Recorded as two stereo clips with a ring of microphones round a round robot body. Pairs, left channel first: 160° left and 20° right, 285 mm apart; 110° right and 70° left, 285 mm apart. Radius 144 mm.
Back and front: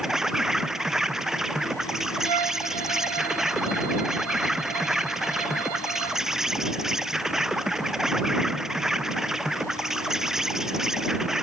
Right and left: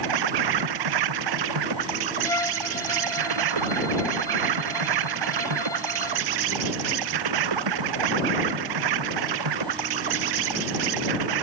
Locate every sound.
0.0 s an insect: 65° left
2.2 s a violin: 35° right